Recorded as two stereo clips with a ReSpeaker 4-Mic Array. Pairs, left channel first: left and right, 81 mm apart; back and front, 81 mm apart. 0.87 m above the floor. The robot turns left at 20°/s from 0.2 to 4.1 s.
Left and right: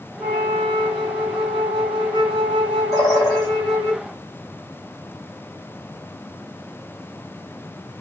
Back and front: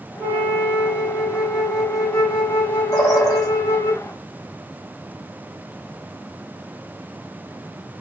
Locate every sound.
0.2 s a flute: 55° right, 1.2 m; by 3.9 s 130° right, 1.2 m
2.9 s a bird: 140° left, 1.7 m; by 3.5 s 130° left, 1.7 m